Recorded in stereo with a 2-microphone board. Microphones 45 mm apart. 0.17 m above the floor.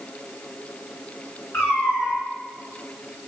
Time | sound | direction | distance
1.5 | a cat meowing | 40° left (ahead or behind) | 1.4 m